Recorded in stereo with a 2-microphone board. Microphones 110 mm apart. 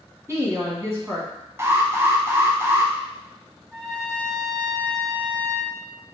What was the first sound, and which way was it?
A woman speaking, 25° right (ahead or behind).